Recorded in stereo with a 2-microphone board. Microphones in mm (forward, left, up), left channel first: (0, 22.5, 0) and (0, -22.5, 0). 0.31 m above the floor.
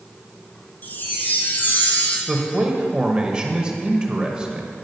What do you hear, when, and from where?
0.8 s a chime: 45° left (ahead or behind), 1.0 m
2.3 s a man speaking: 20° right (ahead or behind), 0.9 m